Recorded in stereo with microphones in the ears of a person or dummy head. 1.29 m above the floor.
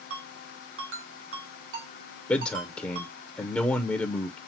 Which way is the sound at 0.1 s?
80° right.